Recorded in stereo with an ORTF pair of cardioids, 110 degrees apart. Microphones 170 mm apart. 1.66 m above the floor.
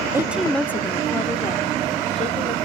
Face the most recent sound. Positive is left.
turn(degrees=40)